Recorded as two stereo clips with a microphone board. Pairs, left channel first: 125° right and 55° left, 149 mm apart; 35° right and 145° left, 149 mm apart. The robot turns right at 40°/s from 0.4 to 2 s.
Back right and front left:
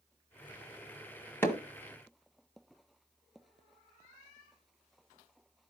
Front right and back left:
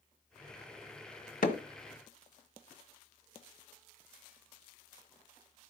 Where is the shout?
No shout in this recording.